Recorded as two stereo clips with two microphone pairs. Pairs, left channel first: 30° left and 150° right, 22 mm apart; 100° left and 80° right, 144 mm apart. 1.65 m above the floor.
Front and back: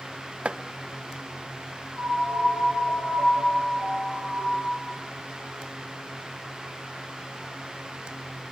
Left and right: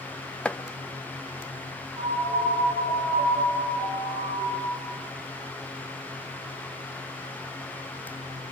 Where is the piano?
40° left, 9.5 m.